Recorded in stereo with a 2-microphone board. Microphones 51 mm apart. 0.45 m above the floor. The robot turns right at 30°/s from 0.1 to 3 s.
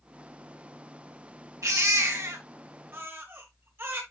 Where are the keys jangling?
I don't hear keys jangling.